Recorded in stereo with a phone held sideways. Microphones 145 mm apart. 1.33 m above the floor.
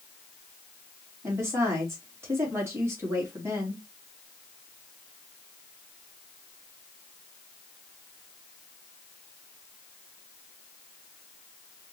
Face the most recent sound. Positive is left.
turn(degrees=-20)  # may be behind; listen again after turning